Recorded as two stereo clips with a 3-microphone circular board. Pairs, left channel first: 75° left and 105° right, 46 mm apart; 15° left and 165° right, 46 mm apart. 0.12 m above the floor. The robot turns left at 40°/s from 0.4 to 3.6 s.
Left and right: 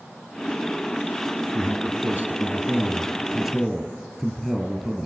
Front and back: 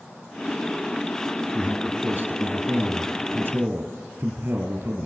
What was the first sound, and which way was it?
A man speaking, 115° right.